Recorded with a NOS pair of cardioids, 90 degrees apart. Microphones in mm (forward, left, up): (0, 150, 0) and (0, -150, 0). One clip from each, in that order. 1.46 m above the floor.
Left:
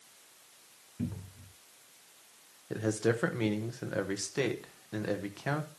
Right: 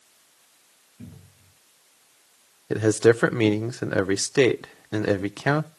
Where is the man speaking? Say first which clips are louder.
Right 12 dB; 60° right, 0.9 m.